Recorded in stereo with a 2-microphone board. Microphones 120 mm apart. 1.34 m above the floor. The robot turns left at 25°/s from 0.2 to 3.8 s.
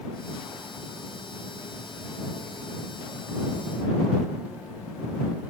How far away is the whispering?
I don't hear whispering.